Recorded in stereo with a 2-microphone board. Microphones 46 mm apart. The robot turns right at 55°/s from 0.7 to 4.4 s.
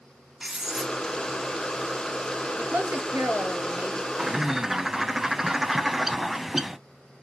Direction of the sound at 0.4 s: 5° right (ahead or behind).